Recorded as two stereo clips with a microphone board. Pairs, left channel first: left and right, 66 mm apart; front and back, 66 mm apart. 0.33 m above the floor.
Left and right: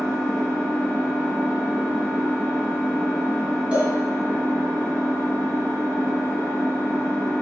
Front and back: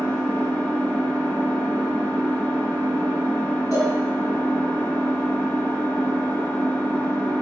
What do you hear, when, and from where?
0.0 s an engine running: 70° right, 1.0 m
3.7 s a cowbell: 15° right, 1.1 m